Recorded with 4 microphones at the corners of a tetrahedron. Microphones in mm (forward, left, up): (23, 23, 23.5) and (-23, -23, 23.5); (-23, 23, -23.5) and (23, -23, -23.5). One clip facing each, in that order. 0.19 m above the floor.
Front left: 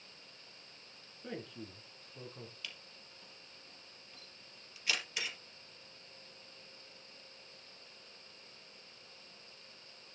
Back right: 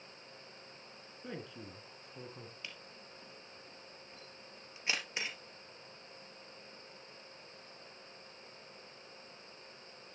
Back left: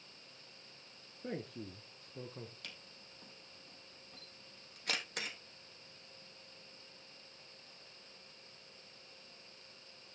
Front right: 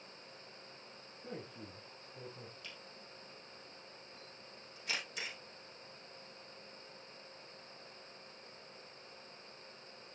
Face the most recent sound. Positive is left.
turn(degrees=160)